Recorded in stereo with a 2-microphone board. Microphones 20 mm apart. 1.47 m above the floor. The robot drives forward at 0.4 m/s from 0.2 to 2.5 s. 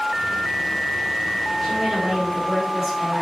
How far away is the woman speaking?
About 0.9 m.